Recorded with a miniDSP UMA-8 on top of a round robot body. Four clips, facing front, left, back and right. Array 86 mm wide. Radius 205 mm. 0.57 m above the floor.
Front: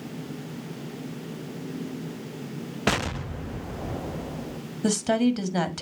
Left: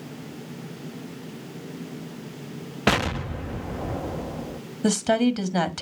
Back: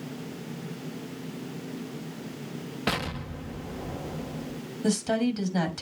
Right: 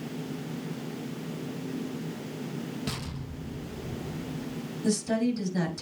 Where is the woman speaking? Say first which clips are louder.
Left 6 dB, front 3 dB; 60° left, 1.9 m.